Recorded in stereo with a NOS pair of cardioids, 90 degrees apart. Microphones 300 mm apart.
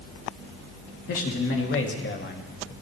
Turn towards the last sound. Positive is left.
turn(degrees=25)